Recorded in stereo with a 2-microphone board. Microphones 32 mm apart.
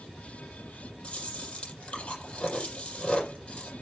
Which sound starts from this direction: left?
Chewing, at 1.0 s.